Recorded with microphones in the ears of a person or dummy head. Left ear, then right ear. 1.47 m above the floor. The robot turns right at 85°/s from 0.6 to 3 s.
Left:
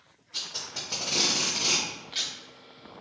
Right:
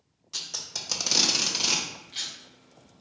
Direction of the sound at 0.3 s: 60° right (ahead or behind).